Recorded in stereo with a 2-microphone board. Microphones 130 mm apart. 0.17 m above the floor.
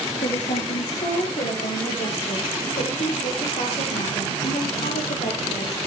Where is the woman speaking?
75° left (ahead or behind), 7 m; by 5.9 s 70° left (ahead or behind), 4 m.